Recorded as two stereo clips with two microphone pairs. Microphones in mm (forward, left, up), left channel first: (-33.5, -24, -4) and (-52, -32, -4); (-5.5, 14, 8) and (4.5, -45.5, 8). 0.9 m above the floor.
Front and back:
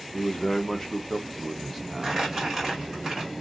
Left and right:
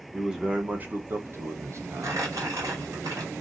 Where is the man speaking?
5° right, 0.8 m; by 3.0 s 100° right, 1.5 m.